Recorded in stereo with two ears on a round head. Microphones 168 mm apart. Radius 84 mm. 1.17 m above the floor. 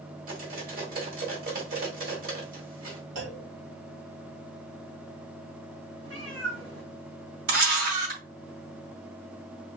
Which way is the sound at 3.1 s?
70° right (ahead or behind).